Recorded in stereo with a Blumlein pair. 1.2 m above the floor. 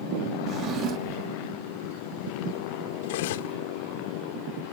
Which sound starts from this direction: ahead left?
Cutlery clinking, at 3.0 s.